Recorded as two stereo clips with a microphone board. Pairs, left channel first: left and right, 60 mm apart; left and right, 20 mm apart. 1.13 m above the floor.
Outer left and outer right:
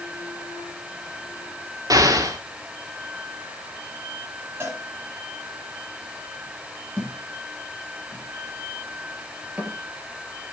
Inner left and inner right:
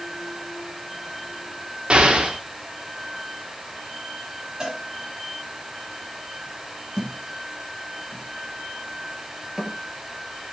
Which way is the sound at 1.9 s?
85° right.